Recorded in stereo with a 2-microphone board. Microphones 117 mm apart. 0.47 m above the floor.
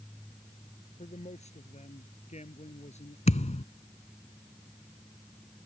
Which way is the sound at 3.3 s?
75° left (ahead or behind).